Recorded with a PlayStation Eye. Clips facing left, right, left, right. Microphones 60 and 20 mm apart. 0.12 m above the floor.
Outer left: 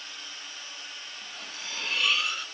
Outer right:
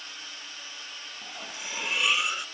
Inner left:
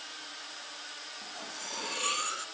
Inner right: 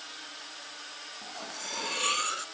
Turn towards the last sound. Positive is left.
turn(degrees=-15)  # may be behind; listen again after turning